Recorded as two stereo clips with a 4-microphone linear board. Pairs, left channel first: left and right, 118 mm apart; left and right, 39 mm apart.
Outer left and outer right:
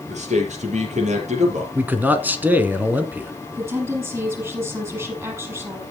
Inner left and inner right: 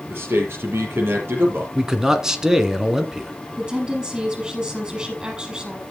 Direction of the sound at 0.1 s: 70° right (ahead or behind).